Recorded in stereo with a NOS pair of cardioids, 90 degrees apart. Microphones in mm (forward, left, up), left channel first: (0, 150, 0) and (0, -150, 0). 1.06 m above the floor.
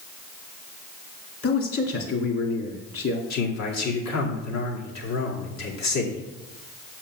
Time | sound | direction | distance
1.4 | a man speaking | 50° left | 2.5 m
3.3 | a man speaking | 60° left | 2.5 m